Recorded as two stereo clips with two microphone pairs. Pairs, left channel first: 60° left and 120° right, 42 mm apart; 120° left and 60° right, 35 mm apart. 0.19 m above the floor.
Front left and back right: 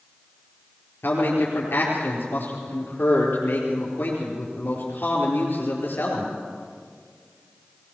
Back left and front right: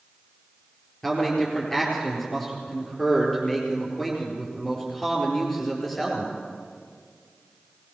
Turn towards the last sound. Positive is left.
turn(degrees=40)